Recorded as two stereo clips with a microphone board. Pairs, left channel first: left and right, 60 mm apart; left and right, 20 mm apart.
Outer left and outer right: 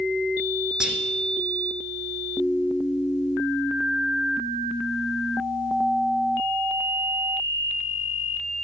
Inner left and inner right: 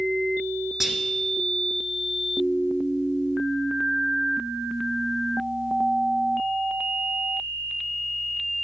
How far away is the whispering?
About 1.3 m.